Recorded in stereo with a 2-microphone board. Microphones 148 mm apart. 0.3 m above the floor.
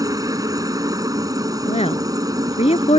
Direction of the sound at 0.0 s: 25° right (ahead or behind).